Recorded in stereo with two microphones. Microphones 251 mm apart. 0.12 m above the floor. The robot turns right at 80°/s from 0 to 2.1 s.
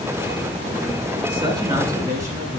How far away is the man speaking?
About 1.3 m.